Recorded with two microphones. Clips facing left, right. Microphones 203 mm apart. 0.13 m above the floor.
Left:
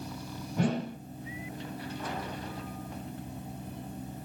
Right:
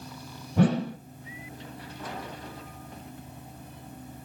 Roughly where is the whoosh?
Right.